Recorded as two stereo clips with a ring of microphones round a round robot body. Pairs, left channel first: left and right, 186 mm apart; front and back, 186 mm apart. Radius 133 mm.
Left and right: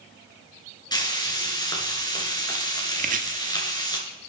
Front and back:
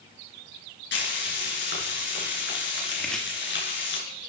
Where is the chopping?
85° right, 1.2 m.